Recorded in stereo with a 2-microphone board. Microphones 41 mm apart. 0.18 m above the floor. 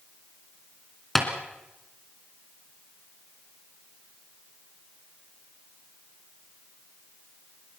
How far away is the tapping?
About 2.5 m.